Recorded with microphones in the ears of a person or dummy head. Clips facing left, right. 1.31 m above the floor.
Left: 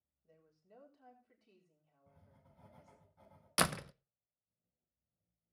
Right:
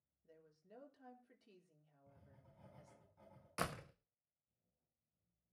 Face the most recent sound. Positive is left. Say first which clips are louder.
# left 8 dB
turn(degrees=80)